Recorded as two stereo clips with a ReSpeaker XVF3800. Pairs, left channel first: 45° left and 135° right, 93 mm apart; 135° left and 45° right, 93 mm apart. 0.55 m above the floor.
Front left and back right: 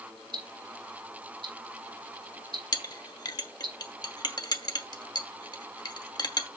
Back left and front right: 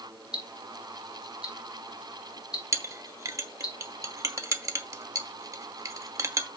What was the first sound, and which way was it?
Ticking, 125° right.